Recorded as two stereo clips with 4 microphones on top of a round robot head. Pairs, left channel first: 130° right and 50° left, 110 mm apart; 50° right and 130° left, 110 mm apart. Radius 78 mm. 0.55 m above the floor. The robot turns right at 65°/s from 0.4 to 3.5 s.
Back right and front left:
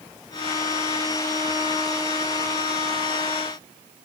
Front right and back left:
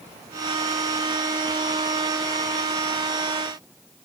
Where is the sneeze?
No sneeze in this recording.